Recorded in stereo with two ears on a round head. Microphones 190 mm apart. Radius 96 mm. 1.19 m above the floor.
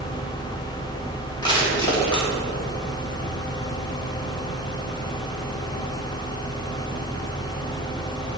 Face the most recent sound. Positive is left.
turn(degrees=20)  # may be behind; listen again after turning